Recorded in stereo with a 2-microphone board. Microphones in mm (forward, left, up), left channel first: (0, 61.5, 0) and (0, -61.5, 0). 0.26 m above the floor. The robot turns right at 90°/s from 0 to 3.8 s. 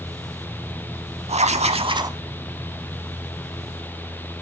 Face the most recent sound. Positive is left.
turn(degrees=120)